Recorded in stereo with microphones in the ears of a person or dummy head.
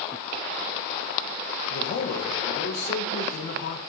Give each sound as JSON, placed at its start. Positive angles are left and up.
{"t": 1.7, "sound": "a man speaking", "side_deg": 60, "distance_m": 1.2}